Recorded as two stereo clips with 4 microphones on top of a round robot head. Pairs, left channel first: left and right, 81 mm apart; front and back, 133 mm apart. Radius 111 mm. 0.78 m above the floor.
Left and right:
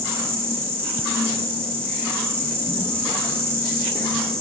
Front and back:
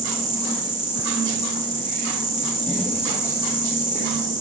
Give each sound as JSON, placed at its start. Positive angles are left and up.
{"t": 0.0, "sound": "an insect", "azimuth_deg": -150, "distance_m": 8.0}